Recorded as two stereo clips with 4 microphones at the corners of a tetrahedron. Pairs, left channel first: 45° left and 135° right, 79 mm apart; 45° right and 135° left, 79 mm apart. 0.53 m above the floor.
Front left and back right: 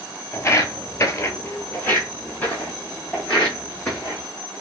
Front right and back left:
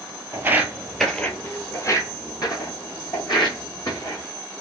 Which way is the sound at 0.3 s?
85° left.